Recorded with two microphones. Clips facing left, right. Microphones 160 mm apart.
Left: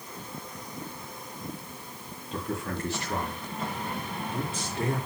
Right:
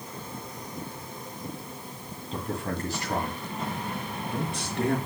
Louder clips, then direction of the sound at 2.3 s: Right 1 dB; 35° right (ahead or behind).